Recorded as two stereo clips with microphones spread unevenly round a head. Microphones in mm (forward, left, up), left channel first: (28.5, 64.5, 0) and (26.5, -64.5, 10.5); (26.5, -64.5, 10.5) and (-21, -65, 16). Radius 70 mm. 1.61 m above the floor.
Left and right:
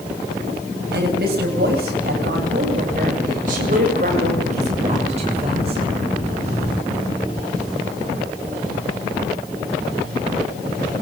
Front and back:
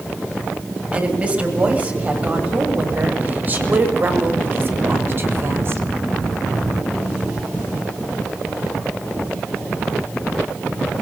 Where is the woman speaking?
120° right, 8.5 m; by 5.8 s 145° right, 6 m.